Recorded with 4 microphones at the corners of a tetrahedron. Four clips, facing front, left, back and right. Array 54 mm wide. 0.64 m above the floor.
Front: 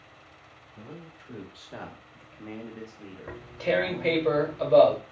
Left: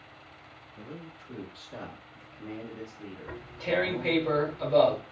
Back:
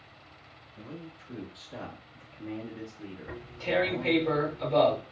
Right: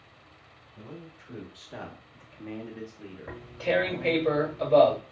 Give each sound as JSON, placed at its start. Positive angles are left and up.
{"t": 0.8, "sound": "a man speaking", "azimuth_deg": -30, "distance_m": 1.6}
{"t": 3.3, "sound": "tearing paper", "azimuth_deg": -30, "distance_m": 1.3}